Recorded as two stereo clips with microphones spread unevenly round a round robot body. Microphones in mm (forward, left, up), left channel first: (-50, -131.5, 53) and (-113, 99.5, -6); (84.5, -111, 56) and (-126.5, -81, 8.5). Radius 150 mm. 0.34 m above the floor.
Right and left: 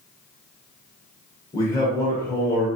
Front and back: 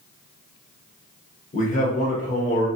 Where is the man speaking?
15° left, 1.0 m.